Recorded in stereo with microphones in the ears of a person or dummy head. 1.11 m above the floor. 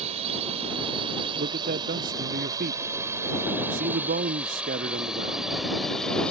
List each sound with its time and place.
0.0 s a drone: 40° right (ahead or behind); by 6.3 s centre (ahead or behind)
1.4 s a man speaking: 35° right (ahead or behind)